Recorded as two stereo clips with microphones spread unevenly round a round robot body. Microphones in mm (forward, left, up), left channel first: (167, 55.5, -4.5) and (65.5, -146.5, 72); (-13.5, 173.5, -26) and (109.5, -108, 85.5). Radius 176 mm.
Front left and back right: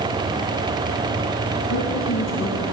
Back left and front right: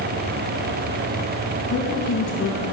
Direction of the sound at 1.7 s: 55° left.